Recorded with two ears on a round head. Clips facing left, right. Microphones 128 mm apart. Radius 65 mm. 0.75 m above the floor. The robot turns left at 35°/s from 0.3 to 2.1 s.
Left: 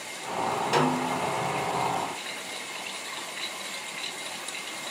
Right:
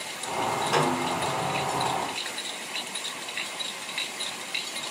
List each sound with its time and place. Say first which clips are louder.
0.7 s a snare drum: left 1 dB; 10° left (ahead or behind), 0.9 m; by 1.2 s 25° left (ahead or behind), 0.9 m